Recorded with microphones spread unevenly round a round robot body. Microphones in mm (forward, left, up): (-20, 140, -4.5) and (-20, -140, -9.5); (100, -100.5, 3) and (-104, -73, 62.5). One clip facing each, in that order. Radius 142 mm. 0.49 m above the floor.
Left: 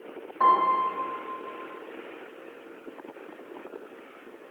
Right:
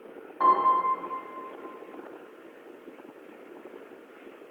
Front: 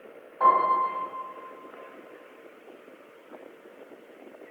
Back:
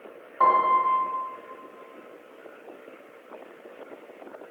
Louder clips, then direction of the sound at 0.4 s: Even, back 1 dB; 170° right.